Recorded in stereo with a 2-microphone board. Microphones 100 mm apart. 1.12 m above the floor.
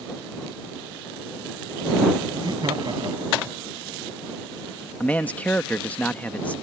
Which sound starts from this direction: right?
Laughter, at 2.3 s.